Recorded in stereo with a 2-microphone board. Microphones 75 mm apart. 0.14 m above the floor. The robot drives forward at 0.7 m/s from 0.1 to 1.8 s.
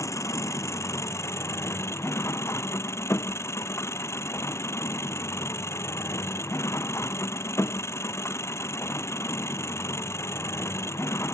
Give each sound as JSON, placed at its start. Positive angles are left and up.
{"t": 0.0, "sound": "an engine running", "side_deg": 45}